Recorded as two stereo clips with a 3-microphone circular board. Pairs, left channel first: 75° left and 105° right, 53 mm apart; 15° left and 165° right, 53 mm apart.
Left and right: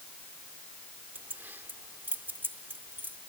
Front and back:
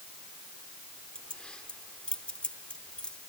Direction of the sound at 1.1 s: 55° right.